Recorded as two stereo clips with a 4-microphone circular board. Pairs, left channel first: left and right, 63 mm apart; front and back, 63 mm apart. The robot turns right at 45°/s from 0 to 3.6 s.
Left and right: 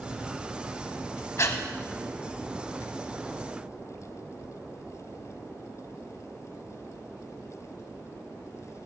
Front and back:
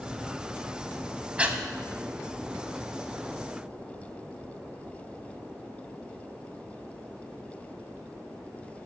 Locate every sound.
1.4 s breathing: 115° left, 0.6 m; by 1.6 s 125° left, 0.6 m